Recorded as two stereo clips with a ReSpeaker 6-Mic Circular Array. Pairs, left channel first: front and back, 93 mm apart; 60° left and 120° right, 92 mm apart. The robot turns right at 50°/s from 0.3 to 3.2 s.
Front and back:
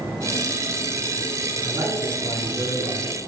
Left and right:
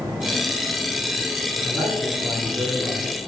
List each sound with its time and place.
1.6 s a man speaking: 115° left, 5 m; by 3.0 s 175° right, 5 m